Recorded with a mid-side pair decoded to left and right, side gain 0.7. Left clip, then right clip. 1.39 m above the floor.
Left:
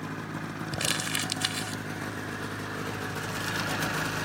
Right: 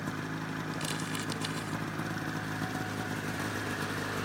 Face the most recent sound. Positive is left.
turn(degrees=40)